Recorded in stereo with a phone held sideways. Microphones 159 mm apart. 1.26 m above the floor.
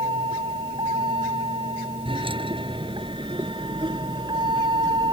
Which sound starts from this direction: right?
A vehicle, at 0.0 s.